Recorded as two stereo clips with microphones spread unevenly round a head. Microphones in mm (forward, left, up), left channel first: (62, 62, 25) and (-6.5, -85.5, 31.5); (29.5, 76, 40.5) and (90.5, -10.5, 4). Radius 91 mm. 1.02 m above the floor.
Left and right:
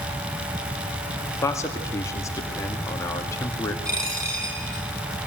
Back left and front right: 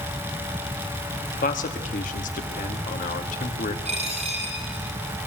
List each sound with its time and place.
1.4 s a man speaking: 140° left, 2 m
3.9 s a dropped coin: 45° right, 9 m